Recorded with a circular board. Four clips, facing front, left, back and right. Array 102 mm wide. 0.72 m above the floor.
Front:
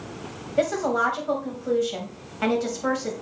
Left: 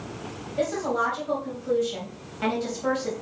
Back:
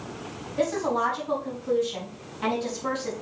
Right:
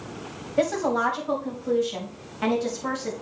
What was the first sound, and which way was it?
A woman speaking, 25° right.